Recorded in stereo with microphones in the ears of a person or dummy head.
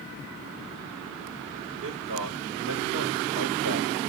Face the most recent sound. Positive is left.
turn(degrees=-85)